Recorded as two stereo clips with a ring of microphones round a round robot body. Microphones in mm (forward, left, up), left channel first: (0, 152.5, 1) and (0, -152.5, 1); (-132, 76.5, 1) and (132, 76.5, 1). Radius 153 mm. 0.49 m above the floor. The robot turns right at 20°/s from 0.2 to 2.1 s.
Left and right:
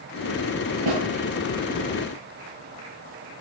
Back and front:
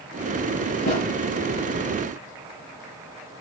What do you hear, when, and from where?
0.9 s a snare drum: 115° right, 9.5 m; by 1.0 s 110° right, 9.5 m